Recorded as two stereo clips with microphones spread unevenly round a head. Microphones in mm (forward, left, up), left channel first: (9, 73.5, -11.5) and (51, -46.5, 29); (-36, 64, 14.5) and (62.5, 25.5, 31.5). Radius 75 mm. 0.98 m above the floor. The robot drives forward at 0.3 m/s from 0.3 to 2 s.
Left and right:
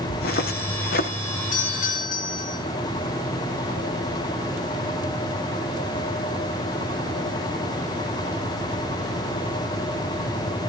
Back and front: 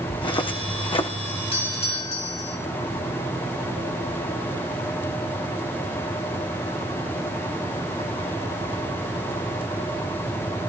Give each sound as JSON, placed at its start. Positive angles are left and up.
{"t": 0.1, "sound": "footsteps", "azimuth_deg": 115, "distance_m": 3.0}
{"t": 1.5, "sound": "a doorbell", "azimuth_deg": 135, "distance_m": 6.0}